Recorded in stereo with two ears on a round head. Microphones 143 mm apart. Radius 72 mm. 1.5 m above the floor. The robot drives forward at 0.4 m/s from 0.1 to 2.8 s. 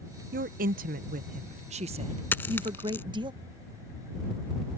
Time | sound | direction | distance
0.3 | a woman speaking | 55° right (ahead or behind) | ?
2.3 | a dropped coin | 15° left (ahead or behind) | ?